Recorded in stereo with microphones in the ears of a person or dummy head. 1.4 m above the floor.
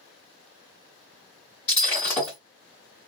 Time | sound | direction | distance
1.7 | breaking glass | 15° left (ahead or behind) | 1.3 m